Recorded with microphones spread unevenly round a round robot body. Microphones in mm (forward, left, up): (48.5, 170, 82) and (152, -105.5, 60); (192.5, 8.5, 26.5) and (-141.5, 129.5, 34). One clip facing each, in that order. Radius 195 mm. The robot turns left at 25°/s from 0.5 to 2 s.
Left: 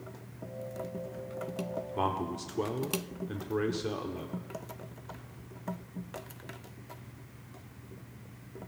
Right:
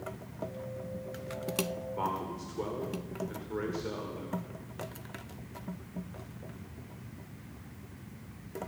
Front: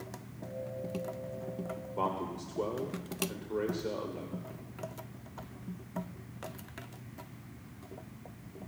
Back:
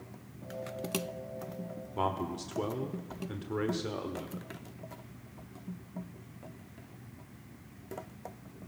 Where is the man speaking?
120° left, 1.4 m.